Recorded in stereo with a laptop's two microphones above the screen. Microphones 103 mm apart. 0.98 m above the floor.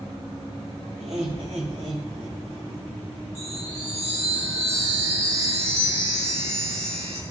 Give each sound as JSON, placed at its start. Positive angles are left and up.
{"t": 1.0, "sound": "laughter", "side_deg": -75, "distance_m": 5.5}
{"t": 3.4, "sound": "a chime", "side_deg": -75, "distance_m": 2.5}